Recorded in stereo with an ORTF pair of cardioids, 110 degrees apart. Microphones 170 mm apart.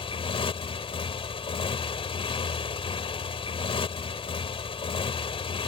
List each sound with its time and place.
0.0 s a motorcycle: 35° left